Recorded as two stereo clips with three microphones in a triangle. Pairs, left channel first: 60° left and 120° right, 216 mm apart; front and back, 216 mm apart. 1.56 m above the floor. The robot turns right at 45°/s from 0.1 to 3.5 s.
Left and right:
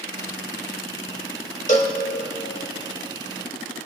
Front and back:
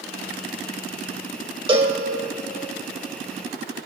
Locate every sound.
1.7 s a cowbell: 115° left, 1.4 m; by 2.0 s 125° left, 1.4 m